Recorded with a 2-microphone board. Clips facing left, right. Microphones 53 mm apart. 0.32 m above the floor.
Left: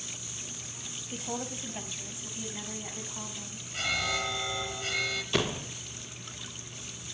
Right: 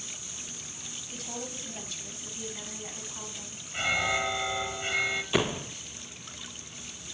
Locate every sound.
1.1 s a woman speaking: 30° left (ahead or behind), 2.0 m; by 3.6 s 10° left (ahead or behind), 3.5 m
3.7 s an alarm: 20° right (ahead or behind), 1.6 m
5.3 s a door slam: 10° right (ahead or behind), 0.5 m